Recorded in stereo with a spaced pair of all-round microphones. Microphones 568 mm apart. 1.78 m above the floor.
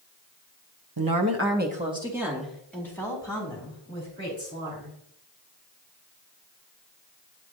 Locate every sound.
1.0 s a woman speaking: 40° right (ahead or behind), 0.8 m; by 5.0 s 10° left (ahead or behind), 4.5 m